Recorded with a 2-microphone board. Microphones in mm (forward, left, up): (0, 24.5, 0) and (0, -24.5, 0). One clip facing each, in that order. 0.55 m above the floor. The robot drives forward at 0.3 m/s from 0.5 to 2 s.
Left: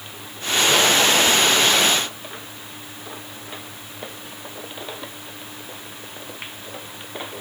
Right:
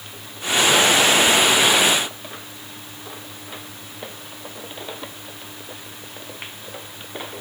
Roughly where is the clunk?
I don't hear a clunk.